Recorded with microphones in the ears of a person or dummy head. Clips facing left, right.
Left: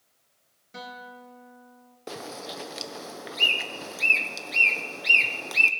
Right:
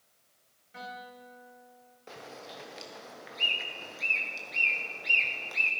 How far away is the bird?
About 0.8 m.